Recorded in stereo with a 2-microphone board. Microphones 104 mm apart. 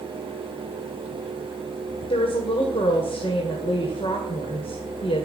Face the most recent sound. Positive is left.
turn(degrees=60)  # may be behind; listen again after turning